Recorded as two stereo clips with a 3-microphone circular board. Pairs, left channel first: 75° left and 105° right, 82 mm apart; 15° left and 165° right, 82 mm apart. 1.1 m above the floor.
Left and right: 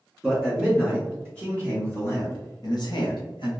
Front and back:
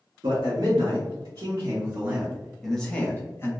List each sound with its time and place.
0.2 s a man speaking: 165° left, 1.8 m; by 3.5 s 70° left, 1.2 m